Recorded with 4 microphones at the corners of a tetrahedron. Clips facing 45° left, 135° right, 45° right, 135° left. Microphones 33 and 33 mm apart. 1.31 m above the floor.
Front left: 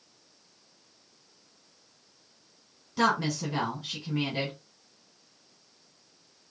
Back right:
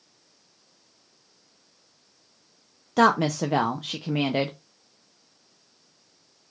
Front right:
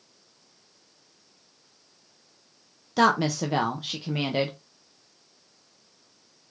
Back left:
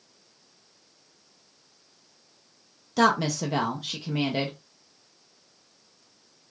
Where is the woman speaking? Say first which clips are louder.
Back right 6 dB, front right 1 dB; 125° right, 0.5 m.